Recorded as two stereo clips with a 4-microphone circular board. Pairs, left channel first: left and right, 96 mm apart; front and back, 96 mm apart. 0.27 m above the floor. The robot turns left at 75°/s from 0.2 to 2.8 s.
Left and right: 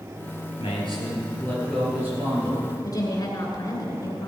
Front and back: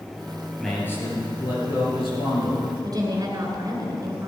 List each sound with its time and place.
0.6 s a man speaking: 90° left, 6 m; by 2.7 s 70° right, 6 m
2.8 s a woman speaking: 135° left, 3 m